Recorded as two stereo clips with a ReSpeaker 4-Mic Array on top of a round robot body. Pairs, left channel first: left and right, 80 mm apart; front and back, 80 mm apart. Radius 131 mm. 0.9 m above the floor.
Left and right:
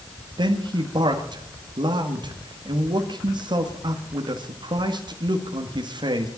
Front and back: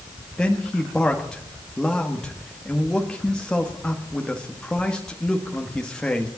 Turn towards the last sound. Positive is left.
turn(degrees=-80)